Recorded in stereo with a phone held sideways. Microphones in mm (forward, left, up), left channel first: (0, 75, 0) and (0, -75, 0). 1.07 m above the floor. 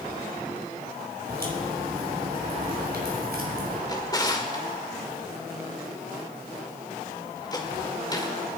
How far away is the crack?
About 4 m.